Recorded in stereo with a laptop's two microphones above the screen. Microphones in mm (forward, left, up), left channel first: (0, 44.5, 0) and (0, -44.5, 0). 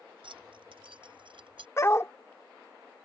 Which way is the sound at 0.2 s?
80° right.